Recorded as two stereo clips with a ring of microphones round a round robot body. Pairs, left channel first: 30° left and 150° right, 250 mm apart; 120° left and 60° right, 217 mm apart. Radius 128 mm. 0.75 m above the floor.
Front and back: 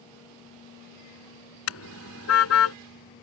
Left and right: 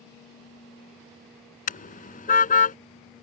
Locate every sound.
1.7 s a car horn: 65° left